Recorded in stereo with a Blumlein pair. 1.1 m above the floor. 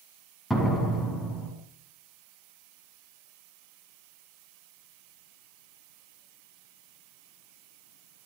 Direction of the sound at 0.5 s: 5° left.